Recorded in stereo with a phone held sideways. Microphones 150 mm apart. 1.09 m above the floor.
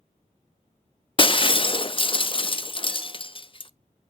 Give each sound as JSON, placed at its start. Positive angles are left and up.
{"t": 1.2, "sound": "breaking glass", "side_deg": 35, "distance_m": 0.5}